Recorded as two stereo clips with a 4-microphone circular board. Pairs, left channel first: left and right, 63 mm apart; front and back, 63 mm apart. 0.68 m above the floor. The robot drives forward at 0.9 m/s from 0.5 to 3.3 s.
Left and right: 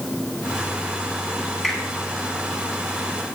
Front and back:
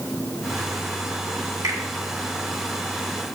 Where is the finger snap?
Straight behind, 2.5 m.